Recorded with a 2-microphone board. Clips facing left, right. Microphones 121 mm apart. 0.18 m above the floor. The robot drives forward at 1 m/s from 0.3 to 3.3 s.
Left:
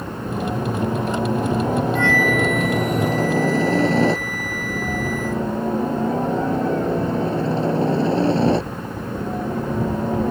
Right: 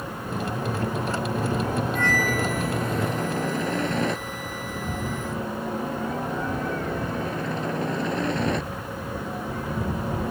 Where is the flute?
45° right (ahead or behind); by 5.5 s 25° right (ahead or behind).